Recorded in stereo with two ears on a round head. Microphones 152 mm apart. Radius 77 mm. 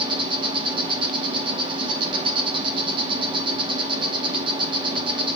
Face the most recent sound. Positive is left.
turn(degrees=-30)  # may be behind; listen again after turning